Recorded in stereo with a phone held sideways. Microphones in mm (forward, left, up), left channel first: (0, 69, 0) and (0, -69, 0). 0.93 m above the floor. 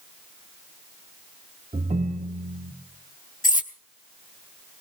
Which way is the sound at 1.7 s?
55° right (ahead or behind).